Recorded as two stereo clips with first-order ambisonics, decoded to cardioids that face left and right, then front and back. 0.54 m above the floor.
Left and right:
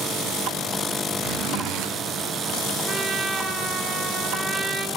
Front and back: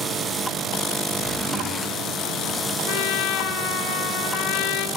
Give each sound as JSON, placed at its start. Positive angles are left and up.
{"t": 1.2, "sound": "a zipper", "azimuth_deg": -95, "distance_m": 4.5}
{"t": 2.9, "sound": "a trumpet", "azimuth_deg": -20, "distance_m": 2.5}